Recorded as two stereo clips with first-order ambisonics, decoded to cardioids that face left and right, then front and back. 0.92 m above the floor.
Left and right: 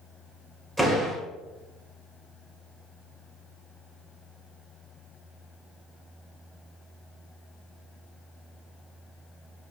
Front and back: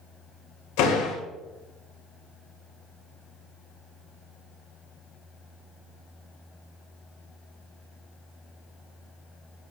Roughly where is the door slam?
Ahead.